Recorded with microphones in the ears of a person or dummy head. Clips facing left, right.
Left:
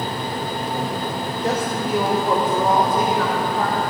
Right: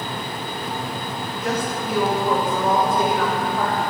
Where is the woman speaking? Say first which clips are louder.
Left 2 dB; 35° left (ahead or behind), 1.1 m; by 3.8 s 15° left (ahead or behind), 2 m.